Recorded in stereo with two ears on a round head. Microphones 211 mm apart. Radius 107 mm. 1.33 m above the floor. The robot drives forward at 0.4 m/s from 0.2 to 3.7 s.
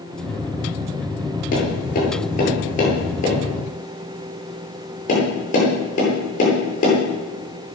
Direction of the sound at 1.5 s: 40° left (ahead or behind).